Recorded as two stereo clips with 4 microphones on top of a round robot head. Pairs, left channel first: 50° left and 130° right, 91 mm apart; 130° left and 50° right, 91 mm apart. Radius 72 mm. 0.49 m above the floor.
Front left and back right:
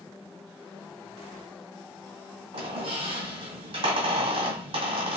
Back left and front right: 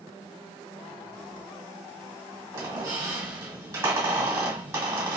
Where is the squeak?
110° right, 1.8 m.